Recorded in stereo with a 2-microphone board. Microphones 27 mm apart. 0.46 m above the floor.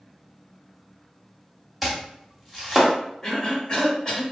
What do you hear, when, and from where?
1.8 s chopping: centre (ahead or behind), 1.0 m
3.2 s a cough: 25° left (ahead or behind), 1.6 m